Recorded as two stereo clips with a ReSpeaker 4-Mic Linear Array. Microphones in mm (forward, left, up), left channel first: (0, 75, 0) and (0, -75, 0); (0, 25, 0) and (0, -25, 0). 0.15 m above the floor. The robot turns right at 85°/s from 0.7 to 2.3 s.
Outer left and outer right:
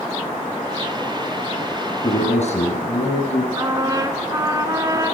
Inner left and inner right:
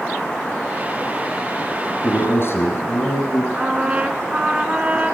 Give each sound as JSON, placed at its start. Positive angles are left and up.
{"t": 2.0, "sound": "a man speaking", "side_deg": 35, "distance_m": 2.5}
{"t": 3.6, "sound": "a trumpet", "side_deg": -25, "distance_m": 0.7}